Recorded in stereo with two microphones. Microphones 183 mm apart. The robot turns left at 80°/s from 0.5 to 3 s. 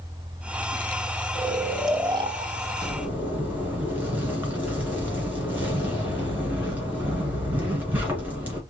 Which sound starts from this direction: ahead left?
Snoring, at 1.4 s.